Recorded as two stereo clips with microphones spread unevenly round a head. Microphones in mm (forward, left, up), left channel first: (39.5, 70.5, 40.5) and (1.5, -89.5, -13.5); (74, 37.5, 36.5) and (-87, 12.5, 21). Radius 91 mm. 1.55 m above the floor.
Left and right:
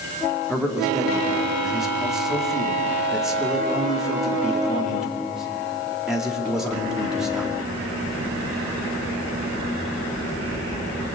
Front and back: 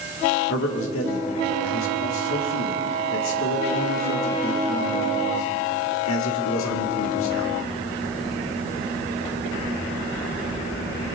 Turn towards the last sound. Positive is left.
turn(degrees=-15)